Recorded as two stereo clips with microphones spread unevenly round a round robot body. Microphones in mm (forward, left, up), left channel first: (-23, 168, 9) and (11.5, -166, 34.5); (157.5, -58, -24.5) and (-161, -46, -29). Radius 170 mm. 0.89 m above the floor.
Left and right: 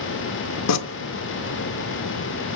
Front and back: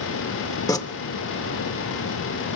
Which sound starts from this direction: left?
Tearing paper, at 0.7 s.